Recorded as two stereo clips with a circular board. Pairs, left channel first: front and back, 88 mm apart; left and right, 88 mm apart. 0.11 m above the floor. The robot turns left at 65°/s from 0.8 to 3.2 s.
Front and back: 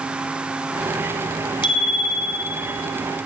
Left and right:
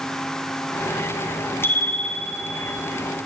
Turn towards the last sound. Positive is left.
turn(degrees=-75)